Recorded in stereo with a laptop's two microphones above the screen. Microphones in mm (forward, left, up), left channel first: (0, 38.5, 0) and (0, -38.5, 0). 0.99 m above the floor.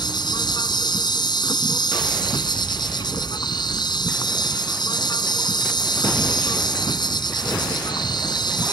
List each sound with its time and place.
0.0 s an insect: 70° left (ahead or behind)